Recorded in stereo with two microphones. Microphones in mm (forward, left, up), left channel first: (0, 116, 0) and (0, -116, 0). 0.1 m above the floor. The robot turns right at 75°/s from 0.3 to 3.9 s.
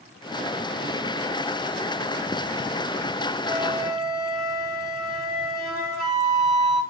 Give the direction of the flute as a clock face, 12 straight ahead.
12 o'clock.